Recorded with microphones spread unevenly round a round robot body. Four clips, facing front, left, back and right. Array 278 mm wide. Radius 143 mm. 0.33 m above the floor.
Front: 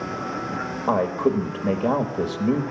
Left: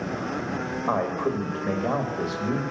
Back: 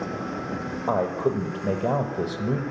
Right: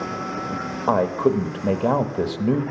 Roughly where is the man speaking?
Right.